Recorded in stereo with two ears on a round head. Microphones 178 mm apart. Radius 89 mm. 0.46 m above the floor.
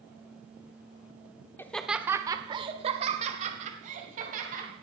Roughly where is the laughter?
Centre.